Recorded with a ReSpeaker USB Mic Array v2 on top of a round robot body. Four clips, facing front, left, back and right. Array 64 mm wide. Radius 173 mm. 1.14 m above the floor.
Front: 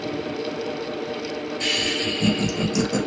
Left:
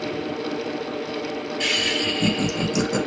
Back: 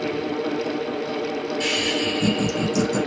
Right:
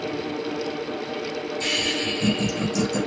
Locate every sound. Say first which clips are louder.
1.6 s laughter: left 3 dB, back 1 dB; 95° left, 2 m; by 3.0 s 70° left, 1.6 m